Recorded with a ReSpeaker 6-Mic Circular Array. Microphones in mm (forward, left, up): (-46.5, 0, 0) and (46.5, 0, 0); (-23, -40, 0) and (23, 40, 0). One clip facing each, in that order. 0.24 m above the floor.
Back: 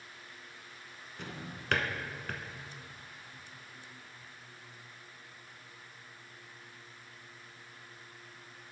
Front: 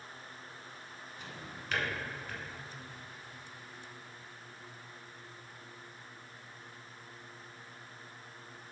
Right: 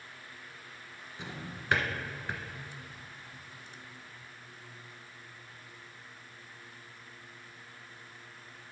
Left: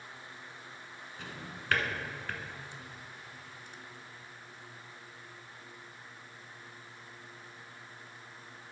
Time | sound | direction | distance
1.2 | a drawer | 170° left | 0.7 m